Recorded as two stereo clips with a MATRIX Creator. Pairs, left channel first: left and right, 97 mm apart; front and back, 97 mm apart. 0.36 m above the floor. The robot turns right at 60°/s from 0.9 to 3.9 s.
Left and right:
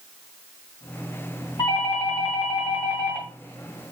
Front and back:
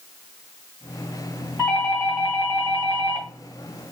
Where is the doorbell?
70° left, 2.5 m; by 3.3 s 175° left, 2.5 m.